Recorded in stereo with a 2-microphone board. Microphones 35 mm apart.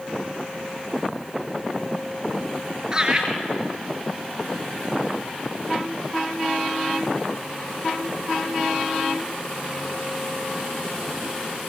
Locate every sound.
2.9 s laughter: 25° right (ahead or behind), 4.5 m